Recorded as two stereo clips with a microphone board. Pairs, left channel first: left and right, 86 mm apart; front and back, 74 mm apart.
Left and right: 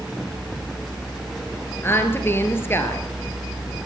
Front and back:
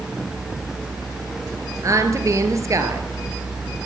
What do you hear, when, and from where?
1.8 s a woman speaking: 145° left, 2.5 m